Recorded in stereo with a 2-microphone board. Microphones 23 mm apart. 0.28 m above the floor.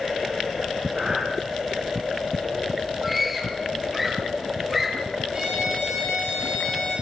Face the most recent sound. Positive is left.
turn(degrees=-25)  # may be behind; listen again after turning